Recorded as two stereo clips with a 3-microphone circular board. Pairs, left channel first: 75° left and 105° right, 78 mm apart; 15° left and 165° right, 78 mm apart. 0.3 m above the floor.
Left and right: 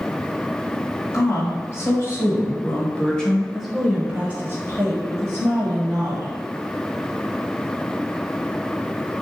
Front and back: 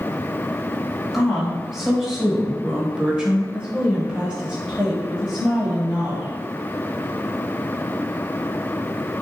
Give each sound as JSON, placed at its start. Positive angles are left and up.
{"t": 1.1, "sound": "a woman speaking", "azimuth_deg": 110, "distance_m": 1.7}